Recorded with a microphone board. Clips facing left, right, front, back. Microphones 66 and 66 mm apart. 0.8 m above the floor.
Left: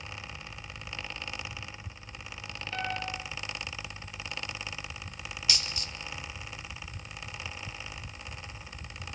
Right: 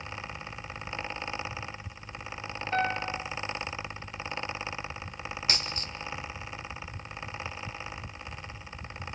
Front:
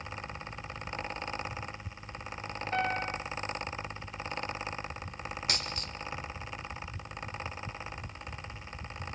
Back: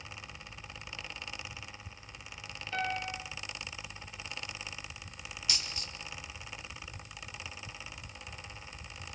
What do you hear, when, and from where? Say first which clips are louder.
2.7 s a piano: right 6 dB, front 3 dB; 45° right, 4 m
5.5 s a dropped coin: right 1 dB, front 1 dB; 40° right, 1.3 m